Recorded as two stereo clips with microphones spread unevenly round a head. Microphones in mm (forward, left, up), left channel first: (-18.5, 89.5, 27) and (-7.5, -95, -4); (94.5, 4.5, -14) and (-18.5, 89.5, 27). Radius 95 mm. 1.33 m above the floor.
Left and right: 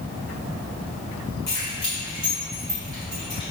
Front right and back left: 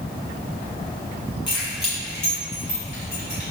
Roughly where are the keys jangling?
Ahead.